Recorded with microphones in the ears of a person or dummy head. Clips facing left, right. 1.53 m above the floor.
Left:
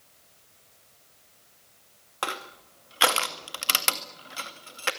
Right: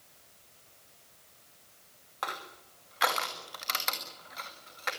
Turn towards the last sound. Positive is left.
turn(degrees=45)  # may be behind; listen again after turning